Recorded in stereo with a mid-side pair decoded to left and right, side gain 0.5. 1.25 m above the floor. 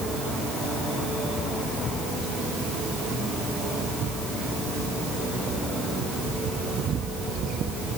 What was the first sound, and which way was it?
Only background noise.